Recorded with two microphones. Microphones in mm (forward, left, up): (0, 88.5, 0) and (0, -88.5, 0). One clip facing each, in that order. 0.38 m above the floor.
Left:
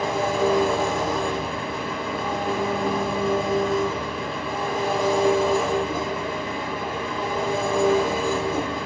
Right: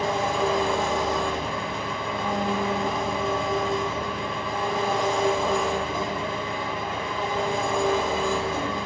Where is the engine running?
5° left (ahead or behind), 4.5 m.